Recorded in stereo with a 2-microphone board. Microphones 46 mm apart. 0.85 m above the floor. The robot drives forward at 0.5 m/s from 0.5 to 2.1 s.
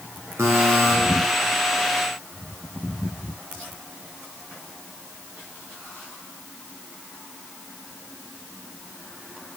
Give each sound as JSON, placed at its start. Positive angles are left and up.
{"t": 0.4, "sound": "a buzzer", "side_deg": -70, "distance_m": 3.0}